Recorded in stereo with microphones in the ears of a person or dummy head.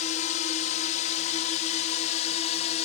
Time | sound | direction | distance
0.0 | a drone | 40° left (ahead or behind) | ?